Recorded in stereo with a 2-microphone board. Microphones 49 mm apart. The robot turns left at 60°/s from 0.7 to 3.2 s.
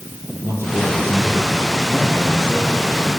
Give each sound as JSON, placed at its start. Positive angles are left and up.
{"t": 0.4, "sound": "a man speaking", "azimuth_deg": -60, "distance_m": 7.5}